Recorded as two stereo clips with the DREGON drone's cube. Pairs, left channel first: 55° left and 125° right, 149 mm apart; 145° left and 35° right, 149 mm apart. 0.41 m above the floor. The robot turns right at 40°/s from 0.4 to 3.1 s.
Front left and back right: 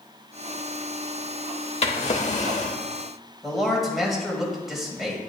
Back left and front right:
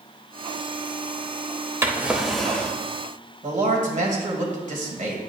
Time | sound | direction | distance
1.8 | a drawer | 35° left | 0.7 m
3.4 | a man speaking | 35° right | 1.8 m